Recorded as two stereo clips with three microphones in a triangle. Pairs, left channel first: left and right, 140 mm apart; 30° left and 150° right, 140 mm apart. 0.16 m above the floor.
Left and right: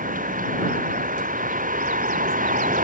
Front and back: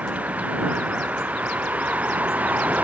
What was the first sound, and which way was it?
A vehicle, 70° right.